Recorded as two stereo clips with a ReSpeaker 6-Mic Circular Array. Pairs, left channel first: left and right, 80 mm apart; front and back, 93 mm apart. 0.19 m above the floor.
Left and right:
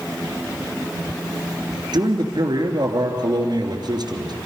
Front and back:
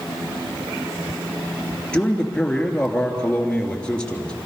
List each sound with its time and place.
1.9 s a man speaking: 80° right, 3 m